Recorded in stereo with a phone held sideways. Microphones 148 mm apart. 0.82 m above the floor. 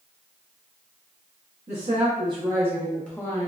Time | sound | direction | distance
1.7 | a woman speaking | 50° right (ahead or behind) | 0.9 m